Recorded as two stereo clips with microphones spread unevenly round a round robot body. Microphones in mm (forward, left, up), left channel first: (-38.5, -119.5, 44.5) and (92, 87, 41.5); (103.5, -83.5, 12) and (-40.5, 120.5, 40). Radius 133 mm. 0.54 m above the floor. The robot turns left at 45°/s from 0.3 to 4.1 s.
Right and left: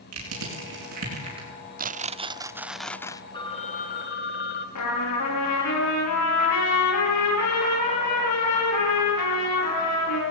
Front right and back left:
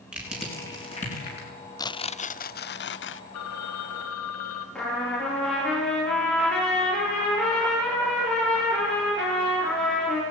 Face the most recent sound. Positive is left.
turn(degrees=-140)